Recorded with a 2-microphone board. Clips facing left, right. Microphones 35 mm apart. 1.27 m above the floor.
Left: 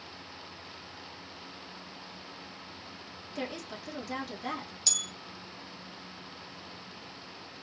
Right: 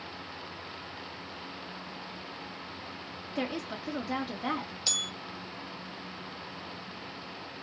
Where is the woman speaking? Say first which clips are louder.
Right 4 dB; 20° right (ahead or behind), 1.8 m.